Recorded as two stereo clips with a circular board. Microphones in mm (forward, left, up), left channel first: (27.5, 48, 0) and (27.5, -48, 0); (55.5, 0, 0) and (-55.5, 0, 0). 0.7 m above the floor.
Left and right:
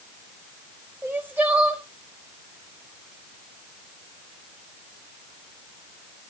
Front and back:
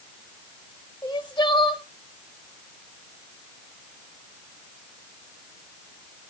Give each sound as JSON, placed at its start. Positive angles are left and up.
{"t": 1.0, "sound": "crying", "azimuth_deg": -25, "distance_m": 1.2}